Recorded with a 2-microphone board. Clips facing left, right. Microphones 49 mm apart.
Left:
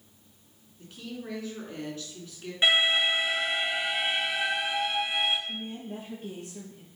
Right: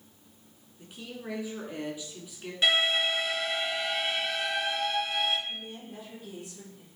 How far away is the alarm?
About 2 m.